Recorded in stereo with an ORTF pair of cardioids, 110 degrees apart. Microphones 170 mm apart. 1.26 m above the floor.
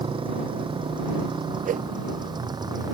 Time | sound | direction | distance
0.0 | a motorcycle | 30° right | ?
1.6 | a whoosh | 50° right | ?